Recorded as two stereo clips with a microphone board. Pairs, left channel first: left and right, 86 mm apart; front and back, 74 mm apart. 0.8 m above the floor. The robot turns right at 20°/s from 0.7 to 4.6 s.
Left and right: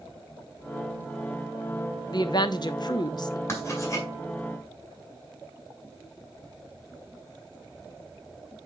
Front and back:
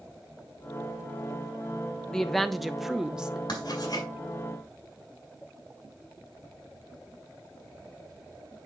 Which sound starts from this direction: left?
A woman speaking, at 2.1 s.